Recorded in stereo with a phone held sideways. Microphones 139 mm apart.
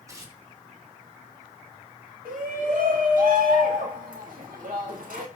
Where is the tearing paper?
25° right (ahead or behind), 2.5 m.